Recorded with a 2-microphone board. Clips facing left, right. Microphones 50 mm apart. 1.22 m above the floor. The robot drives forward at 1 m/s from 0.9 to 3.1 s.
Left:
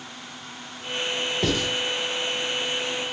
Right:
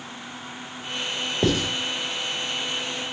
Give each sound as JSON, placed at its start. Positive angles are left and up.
{"t": 1.4, "sound": "writing", "side_deg": -25, "distance_m": 1.6}